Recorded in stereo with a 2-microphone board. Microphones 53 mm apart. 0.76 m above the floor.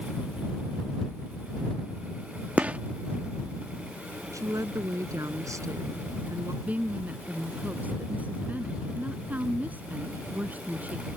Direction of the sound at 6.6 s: 30° right (ahead or behind).